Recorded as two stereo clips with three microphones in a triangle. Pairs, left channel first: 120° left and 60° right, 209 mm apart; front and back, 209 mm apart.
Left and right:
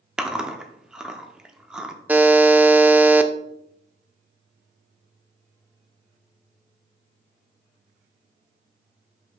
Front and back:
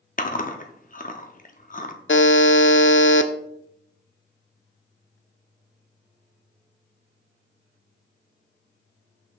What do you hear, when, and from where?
0.2 s chewing: 25° left, 0.7 m
2.1 s a buzzer: 20° left, 0.5 m